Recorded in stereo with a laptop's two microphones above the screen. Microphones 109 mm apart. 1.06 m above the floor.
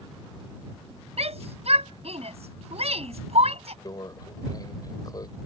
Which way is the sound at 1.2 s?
70° right (ahead or behind).